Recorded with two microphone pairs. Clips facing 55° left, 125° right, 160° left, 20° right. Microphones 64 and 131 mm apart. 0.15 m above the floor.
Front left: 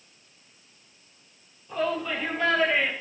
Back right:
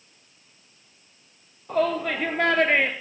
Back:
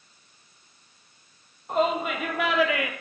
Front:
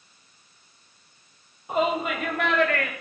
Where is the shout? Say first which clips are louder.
Back right 4 dB, even; 105° right, 3.5 m; by 2.9 s 125° right, 2.5 m.